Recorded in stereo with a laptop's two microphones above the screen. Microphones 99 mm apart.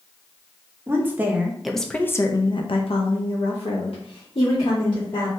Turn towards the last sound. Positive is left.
turn(degrees=65)  # may be behind; listen again after turning